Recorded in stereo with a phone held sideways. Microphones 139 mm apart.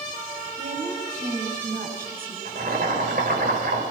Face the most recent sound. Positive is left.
turn(degrees=-80)